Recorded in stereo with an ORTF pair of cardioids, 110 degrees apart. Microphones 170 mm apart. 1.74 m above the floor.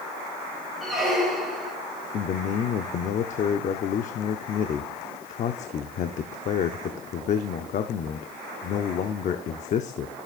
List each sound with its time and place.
0.8 s a squeak: straight ahead, 4 m
2.1 s a man speaking: 50° left, 0.7 m